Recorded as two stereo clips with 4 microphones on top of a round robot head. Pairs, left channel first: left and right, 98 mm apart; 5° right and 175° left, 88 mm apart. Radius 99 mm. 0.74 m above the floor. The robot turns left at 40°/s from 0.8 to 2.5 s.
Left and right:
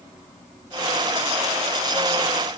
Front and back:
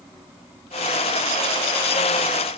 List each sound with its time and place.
Only background noise.